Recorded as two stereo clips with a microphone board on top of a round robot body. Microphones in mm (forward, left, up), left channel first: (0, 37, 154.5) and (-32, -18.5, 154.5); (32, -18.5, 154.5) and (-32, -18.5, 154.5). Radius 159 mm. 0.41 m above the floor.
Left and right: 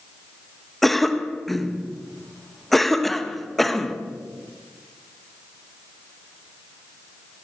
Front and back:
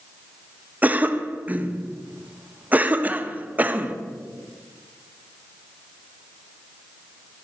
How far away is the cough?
About 1.3 m.